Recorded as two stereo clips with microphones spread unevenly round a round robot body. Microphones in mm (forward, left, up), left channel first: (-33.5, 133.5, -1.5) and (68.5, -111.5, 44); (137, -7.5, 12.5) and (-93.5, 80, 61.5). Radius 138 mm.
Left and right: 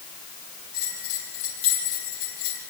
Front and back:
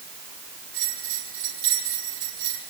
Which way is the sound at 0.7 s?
120° left.